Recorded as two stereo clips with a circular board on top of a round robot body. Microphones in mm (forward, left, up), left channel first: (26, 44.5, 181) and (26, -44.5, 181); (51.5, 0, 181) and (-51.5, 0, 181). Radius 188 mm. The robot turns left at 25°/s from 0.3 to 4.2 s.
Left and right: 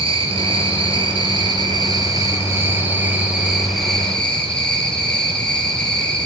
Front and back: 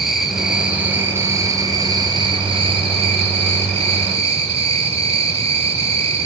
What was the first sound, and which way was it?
An insect, 90° right.